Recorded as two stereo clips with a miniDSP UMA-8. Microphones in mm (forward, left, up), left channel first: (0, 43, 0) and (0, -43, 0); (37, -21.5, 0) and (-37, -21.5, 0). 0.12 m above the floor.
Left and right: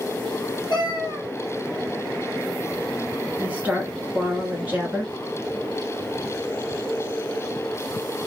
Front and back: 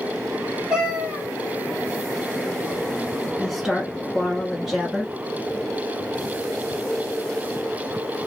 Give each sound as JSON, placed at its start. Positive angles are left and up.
{"t": 0.7, "sound": "a cat meowing", "azimuth_deg": 105, "distance_m": 1.3}
{"t": 3.4, "sound": "a woman speaking", "azimuth_deg": -100, "distance_m": 1.1}